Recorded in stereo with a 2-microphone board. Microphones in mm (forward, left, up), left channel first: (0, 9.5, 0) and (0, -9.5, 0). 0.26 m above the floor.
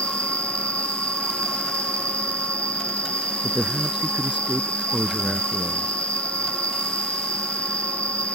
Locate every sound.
0.0 s an insect: 55° left (ahead or behind)
3.4 s a man speaking: 60° right (ahead or behind)